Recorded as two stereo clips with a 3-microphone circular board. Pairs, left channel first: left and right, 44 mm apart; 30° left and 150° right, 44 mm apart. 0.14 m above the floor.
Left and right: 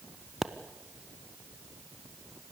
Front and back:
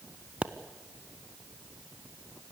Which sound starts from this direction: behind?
A pop, at 0.4 s.